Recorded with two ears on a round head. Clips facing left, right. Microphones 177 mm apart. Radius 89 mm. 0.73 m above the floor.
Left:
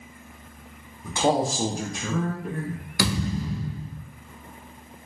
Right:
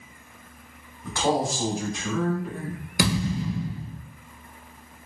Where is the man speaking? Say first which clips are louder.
Left 2 dB; 5° left (ahead or behind), 0.6 m; by 2.8 s 50° left (ahead or behind), 1.1 m.